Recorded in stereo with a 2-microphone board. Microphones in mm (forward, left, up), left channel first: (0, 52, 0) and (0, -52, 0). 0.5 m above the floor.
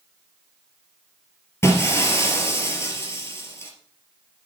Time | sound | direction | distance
1.6 | breaking glass | 25° left (ahead or behind) | 2.5 m